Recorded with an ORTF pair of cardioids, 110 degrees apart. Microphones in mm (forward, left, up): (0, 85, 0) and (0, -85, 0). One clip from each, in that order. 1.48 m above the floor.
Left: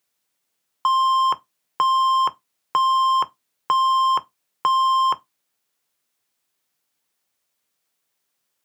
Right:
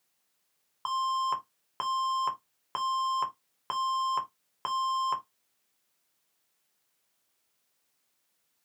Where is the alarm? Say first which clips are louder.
Left 12 dB; 50° left, 0.6 m.